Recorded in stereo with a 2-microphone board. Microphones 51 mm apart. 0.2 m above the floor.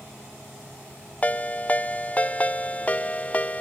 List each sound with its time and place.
1.2 s a ringtone: 30° left (ahead or behind), 0.5 m